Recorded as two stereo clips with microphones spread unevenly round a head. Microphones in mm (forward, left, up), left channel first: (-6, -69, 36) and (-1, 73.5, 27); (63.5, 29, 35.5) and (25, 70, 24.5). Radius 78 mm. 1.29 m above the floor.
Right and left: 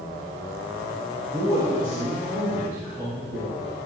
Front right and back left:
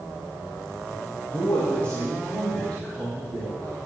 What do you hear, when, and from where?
1.3 s a man speaking: 15° left, 1.7 m; by 3.8 s 25° left, 4.5 m